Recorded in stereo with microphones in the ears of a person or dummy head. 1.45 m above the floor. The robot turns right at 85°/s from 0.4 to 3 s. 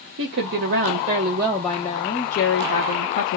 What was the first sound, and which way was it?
A woman speaking, 100° right.